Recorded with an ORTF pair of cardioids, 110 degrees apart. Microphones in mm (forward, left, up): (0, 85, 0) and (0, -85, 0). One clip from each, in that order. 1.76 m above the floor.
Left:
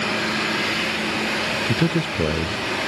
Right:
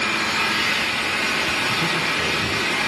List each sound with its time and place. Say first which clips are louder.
0.0 s an engine running: right 2 dB; 55° right, 8.5 m
1.7 s a man speaking: right 2 dB; 55° left, 0.8 m